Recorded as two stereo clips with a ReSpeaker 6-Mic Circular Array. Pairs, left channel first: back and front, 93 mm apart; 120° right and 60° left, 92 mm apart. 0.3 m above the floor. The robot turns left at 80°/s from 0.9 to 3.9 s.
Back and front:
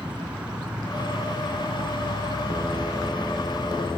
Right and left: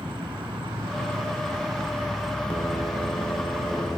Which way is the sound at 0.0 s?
80° left.